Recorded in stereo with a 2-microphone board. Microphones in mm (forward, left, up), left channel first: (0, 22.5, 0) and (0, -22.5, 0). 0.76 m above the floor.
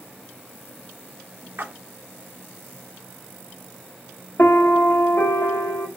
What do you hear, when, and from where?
1.6 s a splash: 55° right (ahead or behind), 0.6 m
4.4 s a piano: 65° left (ahead or behind), 0.9 m